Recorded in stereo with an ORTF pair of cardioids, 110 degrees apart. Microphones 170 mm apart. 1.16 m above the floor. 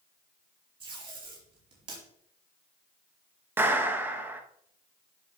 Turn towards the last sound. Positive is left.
turn(degrees=-15)